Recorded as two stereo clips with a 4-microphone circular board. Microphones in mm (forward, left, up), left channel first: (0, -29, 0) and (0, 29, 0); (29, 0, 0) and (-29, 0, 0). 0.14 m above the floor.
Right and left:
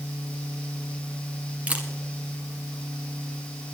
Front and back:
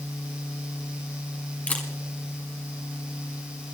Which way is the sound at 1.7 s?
45° left.